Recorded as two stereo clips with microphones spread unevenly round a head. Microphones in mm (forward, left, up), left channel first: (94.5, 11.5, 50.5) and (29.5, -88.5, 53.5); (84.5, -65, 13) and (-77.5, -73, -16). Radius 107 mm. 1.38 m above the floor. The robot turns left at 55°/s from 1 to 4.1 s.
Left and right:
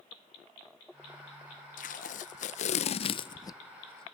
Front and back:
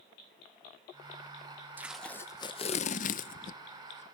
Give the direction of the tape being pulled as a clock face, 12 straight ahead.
9 o'clock.